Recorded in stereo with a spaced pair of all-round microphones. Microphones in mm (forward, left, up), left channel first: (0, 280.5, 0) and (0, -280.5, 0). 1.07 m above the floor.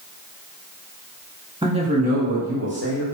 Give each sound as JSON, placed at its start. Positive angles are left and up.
{"t": 1.6, "sound": "a man speaking", "side_deg": -10, "distance_m": 0.6}